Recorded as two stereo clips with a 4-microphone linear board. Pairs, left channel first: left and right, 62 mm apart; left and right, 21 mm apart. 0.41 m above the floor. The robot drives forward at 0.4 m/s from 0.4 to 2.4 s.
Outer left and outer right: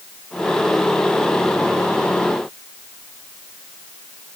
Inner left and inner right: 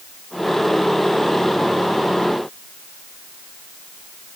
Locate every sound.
Only background noise.